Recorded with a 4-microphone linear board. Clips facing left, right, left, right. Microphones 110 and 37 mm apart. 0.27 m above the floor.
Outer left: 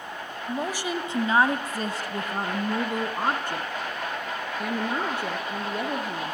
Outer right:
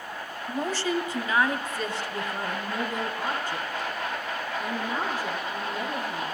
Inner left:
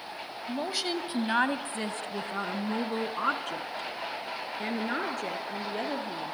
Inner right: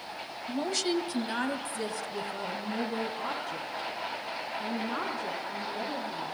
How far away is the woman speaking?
About 1.2 m.